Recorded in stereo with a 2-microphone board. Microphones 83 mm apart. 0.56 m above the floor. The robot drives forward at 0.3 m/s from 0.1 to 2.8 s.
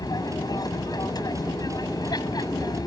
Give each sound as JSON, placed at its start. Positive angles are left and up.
{"t": 0.0, "sound": "an aircraft", "side_deg": 50}